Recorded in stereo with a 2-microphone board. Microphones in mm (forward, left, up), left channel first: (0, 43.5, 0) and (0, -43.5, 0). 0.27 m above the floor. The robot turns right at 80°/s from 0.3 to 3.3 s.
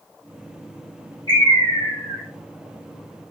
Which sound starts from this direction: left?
A bird, at 1.3 s.